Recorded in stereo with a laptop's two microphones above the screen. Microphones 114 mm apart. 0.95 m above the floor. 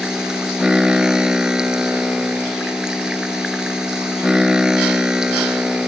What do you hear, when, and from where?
0.0 s a machine running: 5° right (ahead or behind)